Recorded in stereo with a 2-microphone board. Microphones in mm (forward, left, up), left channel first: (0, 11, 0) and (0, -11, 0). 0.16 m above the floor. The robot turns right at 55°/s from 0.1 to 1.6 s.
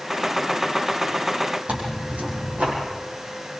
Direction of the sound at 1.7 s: 80° right.